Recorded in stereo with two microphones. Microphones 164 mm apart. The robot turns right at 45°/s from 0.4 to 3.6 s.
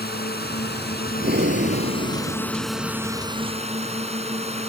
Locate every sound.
0.0 s a drone: 75° left; by 4.7 s 140° right
1.2 s breathing: 105° right; by 3.5 s straight ahead